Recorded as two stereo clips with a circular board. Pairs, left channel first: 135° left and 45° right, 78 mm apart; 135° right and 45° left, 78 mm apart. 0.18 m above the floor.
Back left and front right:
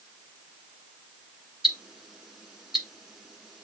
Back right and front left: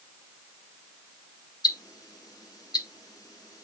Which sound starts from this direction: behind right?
Ticking, at 1.6 s.